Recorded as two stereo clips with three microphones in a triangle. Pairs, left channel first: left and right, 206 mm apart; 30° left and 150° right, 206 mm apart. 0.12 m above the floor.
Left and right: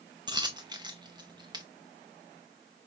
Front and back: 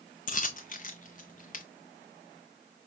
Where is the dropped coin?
25° right, 0.6 m.